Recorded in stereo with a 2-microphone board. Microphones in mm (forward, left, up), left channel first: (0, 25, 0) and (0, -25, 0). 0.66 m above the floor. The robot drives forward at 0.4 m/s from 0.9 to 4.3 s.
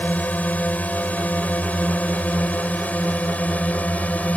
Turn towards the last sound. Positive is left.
turn(degrees=30)  # may be behind; listen again after turning